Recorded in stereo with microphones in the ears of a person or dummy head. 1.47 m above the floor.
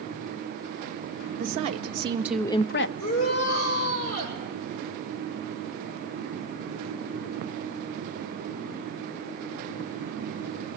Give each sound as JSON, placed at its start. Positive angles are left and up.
{"t": 1.4, "sound": "a woman speaking", "side_deg": -40, "distance_m": 1.6}
{"t": 3.0, "sound": "a shout", "side_deg": 50, "distance_m": 8.0}